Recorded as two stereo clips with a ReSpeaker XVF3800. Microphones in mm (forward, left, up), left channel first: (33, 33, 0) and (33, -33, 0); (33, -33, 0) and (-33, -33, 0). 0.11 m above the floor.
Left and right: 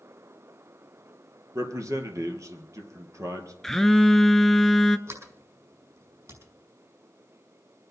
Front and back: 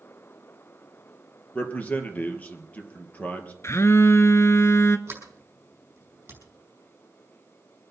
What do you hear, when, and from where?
1.6 s a man speaking: 65° right, 2.5 m
3.6 s a phone buzzing: 10° left, 0.7 m
5.1 s a sliding door: 125° right, 5 m